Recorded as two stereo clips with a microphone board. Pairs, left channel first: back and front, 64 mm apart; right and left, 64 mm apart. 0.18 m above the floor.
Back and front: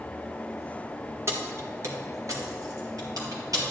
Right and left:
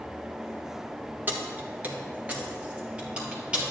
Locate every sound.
1.3 s keys jangling: 35° left, 1.3 m; by 3.7 s 15° left, 2.5 m